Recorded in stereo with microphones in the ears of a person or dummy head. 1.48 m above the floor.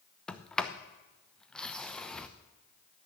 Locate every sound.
0.3 s a sliding door: 10° left (ahead or behind), 0.7 m